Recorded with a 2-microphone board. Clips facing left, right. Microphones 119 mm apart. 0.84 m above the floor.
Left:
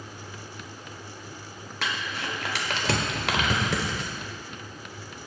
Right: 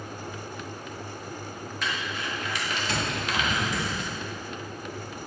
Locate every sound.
1.8 s crumpling: 75° left (ahead or behind), 1.2 m